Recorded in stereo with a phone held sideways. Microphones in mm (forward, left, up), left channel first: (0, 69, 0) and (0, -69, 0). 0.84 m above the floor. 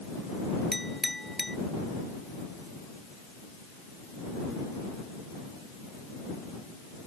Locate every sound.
0.7 s a clink: centre (ahead or behind)